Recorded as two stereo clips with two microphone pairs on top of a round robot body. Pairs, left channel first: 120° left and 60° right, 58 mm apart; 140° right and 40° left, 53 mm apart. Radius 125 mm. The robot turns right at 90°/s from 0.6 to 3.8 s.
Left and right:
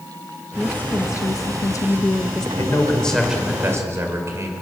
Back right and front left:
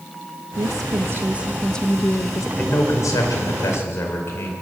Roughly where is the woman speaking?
Ahead left.